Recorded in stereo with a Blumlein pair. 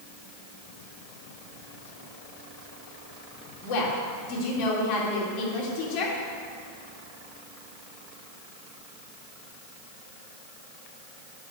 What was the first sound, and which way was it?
A woman speaking, 45° left.